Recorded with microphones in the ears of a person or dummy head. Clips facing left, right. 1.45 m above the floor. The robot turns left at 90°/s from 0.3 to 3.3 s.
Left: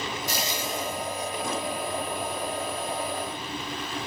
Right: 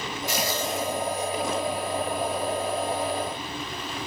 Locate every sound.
0.3 s frying: 35° left, 2 m; by 1.3 s 55° right, 2 m